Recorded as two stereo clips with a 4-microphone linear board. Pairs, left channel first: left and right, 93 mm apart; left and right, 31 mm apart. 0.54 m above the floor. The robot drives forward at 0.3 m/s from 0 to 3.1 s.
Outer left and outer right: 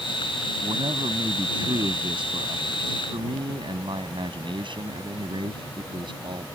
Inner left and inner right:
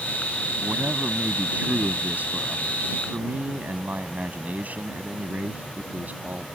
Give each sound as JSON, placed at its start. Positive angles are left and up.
{"t": 0.6, "sound": "a man speaking", "side_deg": -65}